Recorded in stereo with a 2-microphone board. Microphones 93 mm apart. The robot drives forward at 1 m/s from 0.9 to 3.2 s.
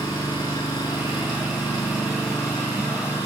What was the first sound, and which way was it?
An engine running, 40° left (ahead or behind).